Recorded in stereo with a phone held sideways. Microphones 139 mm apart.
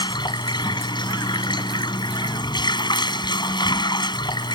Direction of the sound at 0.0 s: 35° left (ahead or behind).